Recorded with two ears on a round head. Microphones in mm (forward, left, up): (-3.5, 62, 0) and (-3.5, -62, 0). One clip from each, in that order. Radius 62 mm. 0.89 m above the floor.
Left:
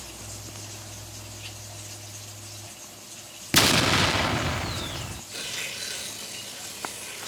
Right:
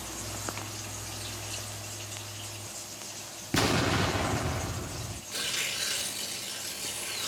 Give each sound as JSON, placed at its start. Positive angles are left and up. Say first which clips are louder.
{"t": 3.5, "sound": "an explosion", "louder": "left 7 dB", "side_deg": 60, "distance_m": 0.6}
{"t": 5.3, "sound": "tearing paper", "louder": "right 2 dB", "side_deg": -5, "distance_m": 2.0}